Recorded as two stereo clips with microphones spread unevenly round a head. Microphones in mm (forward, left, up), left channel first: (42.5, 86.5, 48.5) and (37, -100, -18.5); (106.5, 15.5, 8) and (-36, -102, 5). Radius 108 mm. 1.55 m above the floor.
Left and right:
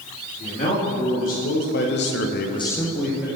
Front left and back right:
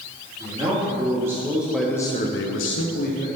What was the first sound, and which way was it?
A man speaking, 145° left.